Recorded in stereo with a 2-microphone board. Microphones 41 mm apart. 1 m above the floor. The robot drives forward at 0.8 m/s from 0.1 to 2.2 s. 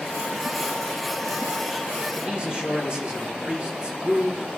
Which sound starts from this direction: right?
A man speaking, at 2.1 s.